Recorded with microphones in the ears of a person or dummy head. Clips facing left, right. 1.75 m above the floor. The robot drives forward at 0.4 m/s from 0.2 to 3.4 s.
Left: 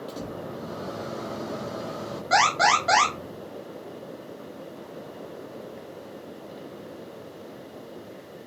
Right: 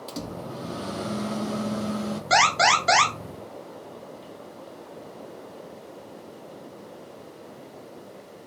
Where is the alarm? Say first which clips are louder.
Even; 40° right (ahead or behind), 1.0 m; by 3.1 s 30° right (ahead or behind), 1.2 m.